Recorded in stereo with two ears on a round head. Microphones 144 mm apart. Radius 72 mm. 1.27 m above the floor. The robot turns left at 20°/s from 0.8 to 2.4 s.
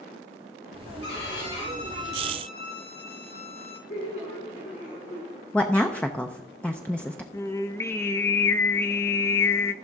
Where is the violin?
80° left, 2.5 m; by 3.8 s 70° left (ahead or behind), 2.5 m.